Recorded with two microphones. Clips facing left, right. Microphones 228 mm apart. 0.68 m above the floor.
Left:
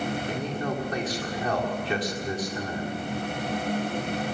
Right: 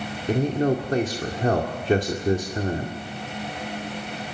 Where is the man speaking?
45° right (ahead or behind), 2 m.